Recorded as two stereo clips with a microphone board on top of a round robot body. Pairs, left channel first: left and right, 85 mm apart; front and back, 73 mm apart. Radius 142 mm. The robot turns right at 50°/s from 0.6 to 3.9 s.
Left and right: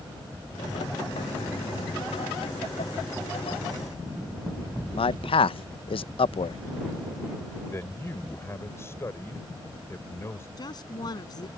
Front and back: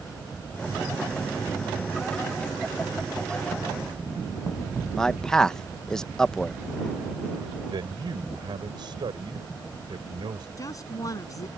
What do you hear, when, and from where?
5.0 s a man speaking: 85° left
7.7 s a man speaking: 150° left
10.6 s a woman speaking: 50° left